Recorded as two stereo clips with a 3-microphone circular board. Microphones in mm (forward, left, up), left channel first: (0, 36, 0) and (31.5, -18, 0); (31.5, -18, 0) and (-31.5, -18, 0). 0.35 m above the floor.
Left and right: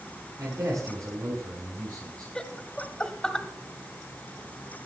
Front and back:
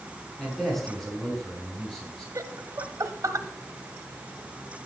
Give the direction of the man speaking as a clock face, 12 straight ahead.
3 o'clock.